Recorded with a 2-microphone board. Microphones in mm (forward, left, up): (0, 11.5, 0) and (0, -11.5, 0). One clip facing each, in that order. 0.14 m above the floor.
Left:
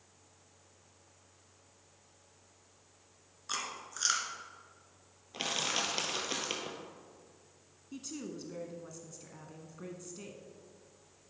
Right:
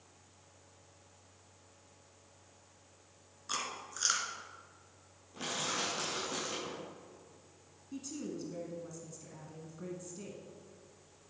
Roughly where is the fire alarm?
No fire alarm in this recording.